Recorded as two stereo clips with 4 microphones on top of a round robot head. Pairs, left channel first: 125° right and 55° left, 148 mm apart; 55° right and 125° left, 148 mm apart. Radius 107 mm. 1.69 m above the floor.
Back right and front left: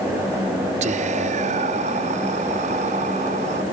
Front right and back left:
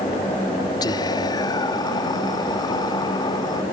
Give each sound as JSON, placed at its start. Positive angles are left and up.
{"t": 0.8, "sound": "whispering", "azimuth_deg": 10}